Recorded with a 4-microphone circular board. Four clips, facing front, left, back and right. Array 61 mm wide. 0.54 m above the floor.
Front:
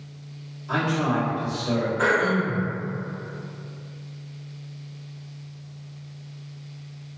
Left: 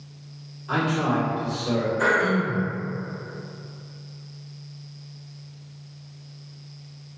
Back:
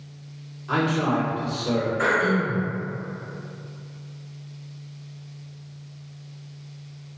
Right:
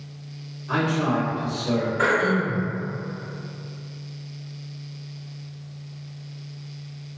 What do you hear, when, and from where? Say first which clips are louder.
0.7 s a man speaking: even, back 1 dB; 170° left, 1.6 m
2.0 s throat clearing: even, front 1 dB; 85° right, 1.3 m